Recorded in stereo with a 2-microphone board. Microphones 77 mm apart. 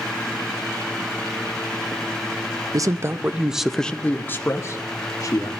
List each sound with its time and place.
2.7 s a man speaking: 50° right (ahead or behind), 0.7 m; by 5.5 s 45° left (ahead or behind), 1.5 m